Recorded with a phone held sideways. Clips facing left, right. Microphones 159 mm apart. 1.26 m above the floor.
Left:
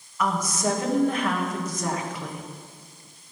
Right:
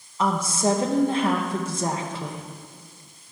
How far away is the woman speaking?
About 1.3 m.